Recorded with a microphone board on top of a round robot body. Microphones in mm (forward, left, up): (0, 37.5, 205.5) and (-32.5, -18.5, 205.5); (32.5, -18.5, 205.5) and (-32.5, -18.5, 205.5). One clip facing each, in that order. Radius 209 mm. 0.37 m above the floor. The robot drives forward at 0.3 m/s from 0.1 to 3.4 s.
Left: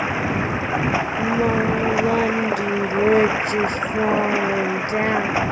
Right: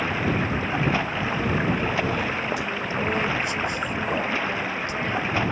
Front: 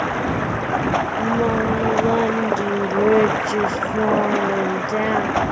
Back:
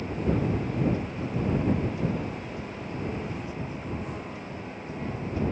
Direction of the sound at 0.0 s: 15° right.